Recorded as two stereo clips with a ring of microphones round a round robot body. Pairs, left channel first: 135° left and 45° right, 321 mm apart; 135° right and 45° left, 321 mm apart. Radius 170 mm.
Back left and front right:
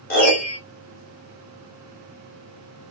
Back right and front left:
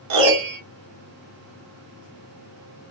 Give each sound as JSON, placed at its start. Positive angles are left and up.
{"t": 0.1, "sound": "a piano", "azimuth_deg": 70, "distance_m": 1.1}